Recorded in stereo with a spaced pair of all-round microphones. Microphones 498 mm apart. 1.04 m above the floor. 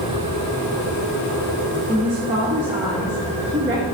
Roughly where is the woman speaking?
Centre.